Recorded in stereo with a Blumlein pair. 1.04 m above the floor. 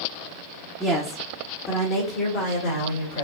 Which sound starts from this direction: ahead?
A woman speaking, at 0.8 s.